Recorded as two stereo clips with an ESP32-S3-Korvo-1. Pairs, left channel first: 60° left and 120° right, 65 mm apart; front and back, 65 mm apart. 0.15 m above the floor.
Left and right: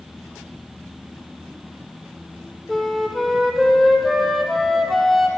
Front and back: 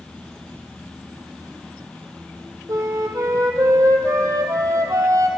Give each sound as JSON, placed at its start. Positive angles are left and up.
{"t": 2.7, "sound": "a flute", "azimuth_deg": 150, "distance_m": 1.2}